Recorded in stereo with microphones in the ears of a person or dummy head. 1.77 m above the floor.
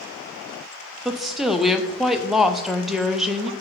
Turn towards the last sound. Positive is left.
turn(degrees=0)  # may be behind; listen again after turning